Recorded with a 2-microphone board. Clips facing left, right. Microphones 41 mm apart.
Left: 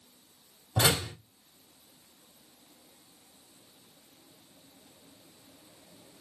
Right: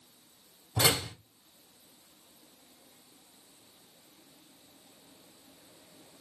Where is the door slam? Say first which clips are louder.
Left 1 dB; 45° left (ahead or behind), 3 m.